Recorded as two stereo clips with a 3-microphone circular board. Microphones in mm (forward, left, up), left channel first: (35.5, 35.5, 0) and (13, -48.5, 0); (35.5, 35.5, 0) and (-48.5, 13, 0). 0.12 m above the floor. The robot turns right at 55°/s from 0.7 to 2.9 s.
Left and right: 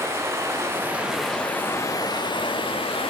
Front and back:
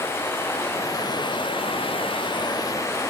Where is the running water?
45° right, 1.6 m; by 3.1 s 80° left, 1.6 m.